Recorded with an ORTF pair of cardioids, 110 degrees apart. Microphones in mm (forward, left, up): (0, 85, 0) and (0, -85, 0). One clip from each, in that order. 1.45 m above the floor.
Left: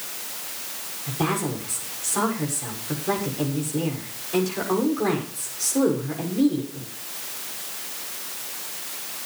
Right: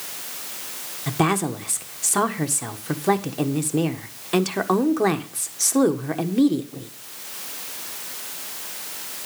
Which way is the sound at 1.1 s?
65° right.